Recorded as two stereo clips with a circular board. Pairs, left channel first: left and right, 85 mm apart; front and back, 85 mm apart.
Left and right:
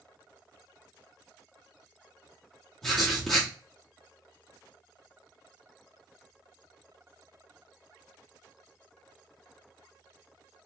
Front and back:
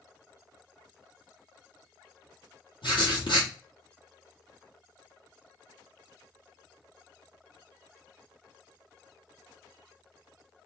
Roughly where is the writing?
Ahead.